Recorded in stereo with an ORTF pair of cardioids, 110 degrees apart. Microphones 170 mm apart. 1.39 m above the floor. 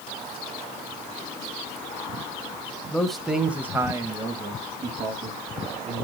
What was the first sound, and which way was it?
A man speaking, 5° left.